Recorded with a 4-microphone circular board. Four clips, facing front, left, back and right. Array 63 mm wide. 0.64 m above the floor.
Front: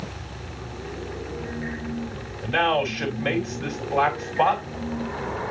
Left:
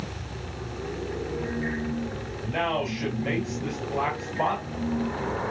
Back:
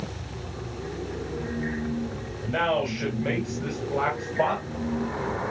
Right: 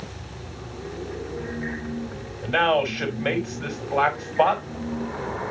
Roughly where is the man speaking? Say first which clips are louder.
Right 7 dB, front 3 dB; right.